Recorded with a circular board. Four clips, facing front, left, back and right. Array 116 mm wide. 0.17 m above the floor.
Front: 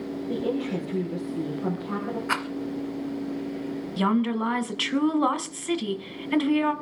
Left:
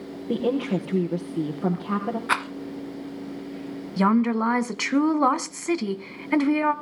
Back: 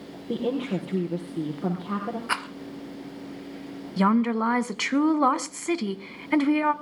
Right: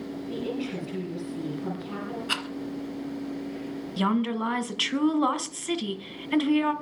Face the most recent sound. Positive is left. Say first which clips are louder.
# left 5 dB, back 2 dB
turn(degrees=120)